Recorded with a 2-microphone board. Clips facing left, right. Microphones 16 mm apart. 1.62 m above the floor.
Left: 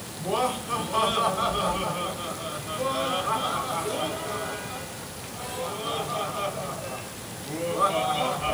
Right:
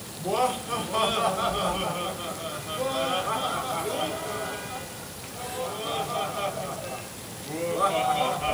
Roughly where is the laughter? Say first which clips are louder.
Right 1 dB; centre.